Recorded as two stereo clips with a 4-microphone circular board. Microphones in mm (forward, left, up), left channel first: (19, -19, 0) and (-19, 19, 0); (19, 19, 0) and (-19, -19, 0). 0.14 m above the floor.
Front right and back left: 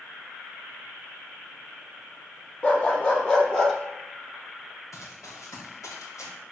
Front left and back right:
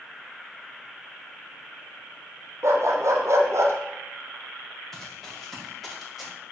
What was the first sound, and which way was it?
A dog barking, 110° right.